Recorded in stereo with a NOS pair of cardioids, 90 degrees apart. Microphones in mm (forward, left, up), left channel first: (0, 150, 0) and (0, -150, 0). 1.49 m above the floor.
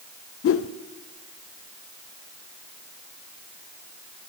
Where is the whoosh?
50° left, 0.6 m.